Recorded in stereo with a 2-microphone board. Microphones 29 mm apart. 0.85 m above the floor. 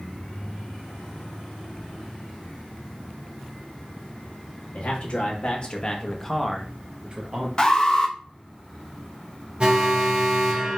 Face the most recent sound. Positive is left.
turn(degrees=-30)  # may be behind; listen again after turning